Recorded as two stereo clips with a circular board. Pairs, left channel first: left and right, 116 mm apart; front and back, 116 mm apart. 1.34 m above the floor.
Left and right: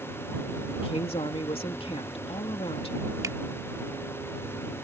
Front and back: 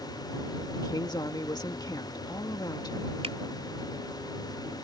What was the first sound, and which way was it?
A woman speaking, 55° left.